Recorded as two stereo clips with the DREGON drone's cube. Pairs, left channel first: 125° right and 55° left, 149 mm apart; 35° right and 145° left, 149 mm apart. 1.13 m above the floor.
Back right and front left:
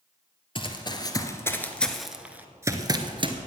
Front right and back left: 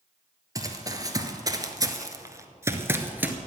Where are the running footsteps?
160° right, 1.5 m; by 3.4 s 75° left, 1.3 m.